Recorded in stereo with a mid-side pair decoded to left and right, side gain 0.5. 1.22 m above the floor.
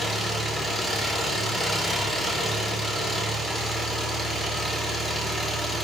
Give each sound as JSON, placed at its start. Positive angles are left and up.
{"t": 0.0, "sound": "an engine running", "azimuth_deg": 20, "distance_m": 2.5}